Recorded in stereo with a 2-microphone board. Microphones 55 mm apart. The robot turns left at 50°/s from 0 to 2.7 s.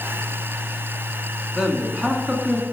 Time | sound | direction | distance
1.6 | a man speaking | 10° right (ahead or behind) | 1.7 m